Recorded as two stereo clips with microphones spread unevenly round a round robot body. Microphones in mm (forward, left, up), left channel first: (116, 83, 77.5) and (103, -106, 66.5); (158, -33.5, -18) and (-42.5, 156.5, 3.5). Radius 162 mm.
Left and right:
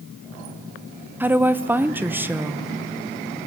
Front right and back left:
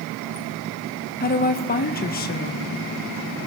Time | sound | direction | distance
1.2 | a woman speaking | 20° right | 0.8 m